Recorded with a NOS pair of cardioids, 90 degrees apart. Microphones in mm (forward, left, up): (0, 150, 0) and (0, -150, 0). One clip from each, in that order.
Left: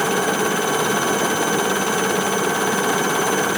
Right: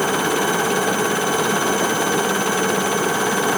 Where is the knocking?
No knocking in this recording.